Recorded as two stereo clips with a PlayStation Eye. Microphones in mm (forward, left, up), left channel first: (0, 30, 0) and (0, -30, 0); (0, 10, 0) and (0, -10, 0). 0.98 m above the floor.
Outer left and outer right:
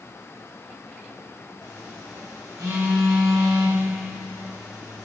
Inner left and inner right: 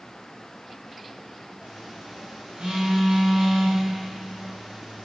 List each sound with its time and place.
1.6 s a phone buzzing: 85° right, 4 m